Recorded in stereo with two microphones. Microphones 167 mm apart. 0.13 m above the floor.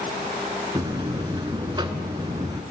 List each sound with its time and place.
0.8 s a buzzer: 30° right (ahead or behind), 0.7 m